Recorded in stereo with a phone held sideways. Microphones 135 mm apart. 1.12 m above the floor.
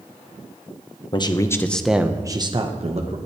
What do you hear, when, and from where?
1.1 s a man speaking: 35° left (ahead or behind), 1.0 m; by 3.2 s 55° right (ahead or behind), 1.3 m